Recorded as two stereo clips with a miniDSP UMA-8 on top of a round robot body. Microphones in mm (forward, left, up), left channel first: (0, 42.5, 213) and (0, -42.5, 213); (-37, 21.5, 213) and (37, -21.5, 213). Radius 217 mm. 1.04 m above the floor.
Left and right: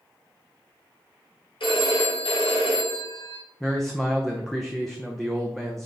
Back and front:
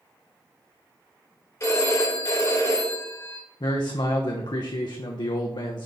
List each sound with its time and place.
1.6 s a phone ringing: 100° left, 3 m
3.6 s a man speaking: straight behind, 0.7 m